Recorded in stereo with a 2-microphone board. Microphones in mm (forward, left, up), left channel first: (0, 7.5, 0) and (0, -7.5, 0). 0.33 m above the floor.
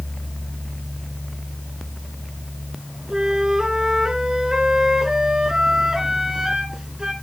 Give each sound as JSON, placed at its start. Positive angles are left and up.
{"t": 3.1, "sound": "a flute", "side_deg": -40, "distance_m": 3.0}